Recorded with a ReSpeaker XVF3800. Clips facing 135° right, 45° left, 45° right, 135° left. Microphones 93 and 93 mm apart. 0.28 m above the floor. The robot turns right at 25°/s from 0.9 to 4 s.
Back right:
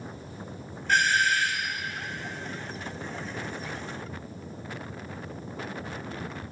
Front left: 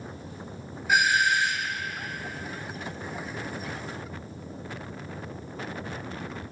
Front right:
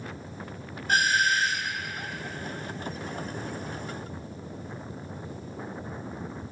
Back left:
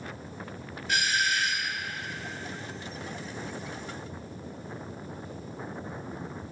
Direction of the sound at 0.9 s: 35° right.